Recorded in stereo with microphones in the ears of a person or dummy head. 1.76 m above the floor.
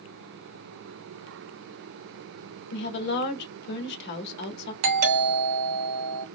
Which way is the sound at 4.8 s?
80° right.